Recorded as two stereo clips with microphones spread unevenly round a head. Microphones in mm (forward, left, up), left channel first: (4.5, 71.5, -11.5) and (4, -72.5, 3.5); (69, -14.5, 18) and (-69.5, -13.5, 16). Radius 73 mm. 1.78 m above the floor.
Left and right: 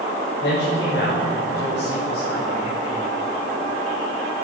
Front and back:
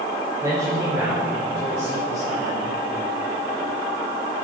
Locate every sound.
0.4 s a man speaking: 105° left, 6 m; by 2.6 s 90° left, 5 m